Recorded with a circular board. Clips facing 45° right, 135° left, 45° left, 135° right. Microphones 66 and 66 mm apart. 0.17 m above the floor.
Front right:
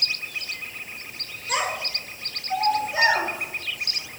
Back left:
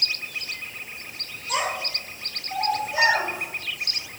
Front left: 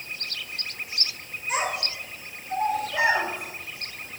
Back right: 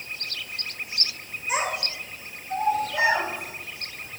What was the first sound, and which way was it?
A child speaking, 50° right.